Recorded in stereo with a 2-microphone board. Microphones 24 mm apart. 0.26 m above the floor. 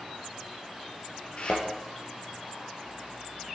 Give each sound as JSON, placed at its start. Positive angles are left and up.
{"t": 1.4, "sound": "a thud", "side_deg": 45, "distance_m": 3.0}